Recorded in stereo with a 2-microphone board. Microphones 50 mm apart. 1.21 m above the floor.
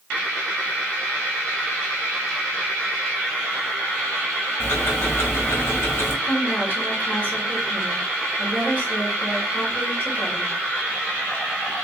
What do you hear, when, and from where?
4.6 s ticking: 55° left (ahead or behind), 2.0 m
6.2 s a woman speaking: 35° left (ahead or behind), 2.5 m